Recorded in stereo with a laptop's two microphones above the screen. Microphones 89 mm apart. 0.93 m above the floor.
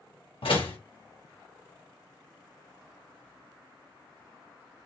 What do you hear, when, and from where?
0.4 s a door slam: 85° left, 1.2 m